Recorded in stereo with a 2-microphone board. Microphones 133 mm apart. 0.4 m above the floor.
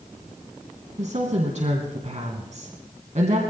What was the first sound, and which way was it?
A woman speaking, 60° right (ahead or behind).